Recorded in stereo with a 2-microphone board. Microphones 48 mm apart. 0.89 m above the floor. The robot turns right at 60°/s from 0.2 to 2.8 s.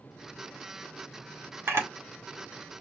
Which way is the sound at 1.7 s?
55° right (ahead or behind).